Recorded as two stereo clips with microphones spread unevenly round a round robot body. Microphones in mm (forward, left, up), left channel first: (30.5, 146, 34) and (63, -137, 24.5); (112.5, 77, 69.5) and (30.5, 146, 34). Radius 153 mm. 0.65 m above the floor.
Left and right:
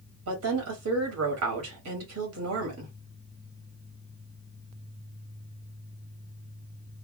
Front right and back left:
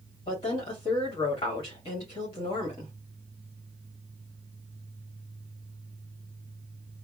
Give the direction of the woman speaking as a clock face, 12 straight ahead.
3 o'clock.